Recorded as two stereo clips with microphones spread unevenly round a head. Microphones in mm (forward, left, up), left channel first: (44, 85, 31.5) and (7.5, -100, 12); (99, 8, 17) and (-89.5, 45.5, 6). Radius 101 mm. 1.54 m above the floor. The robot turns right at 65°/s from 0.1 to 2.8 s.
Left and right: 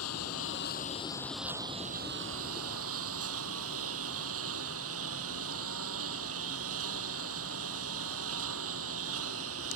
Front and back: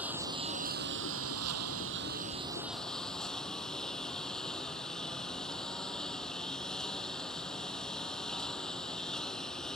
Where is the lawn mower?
85° left; by 9.8 s 100° right.